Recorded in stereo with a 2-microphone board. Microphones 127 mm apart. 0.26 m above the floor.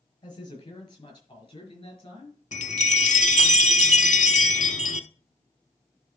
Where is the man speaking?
35° left (ahead or behind), 5.5 m; by 2.4 s 40° left (ahead or behind), 4.5 m.